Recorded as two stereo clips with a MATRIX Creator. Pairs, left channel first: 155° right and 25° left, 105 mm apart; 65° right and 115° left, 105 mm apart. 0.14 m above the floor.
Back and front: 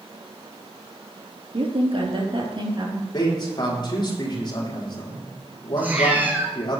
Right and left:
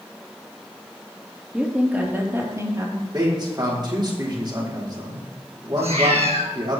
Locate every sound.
1.5 s a woman speaking: 30° left, 3.5 m; by 3.0 s 65° left, 3.5 m
3.1 s a man speaking: 160° left, 5.5 m
5.8 s a cat meowing: 95° left, 2.5 m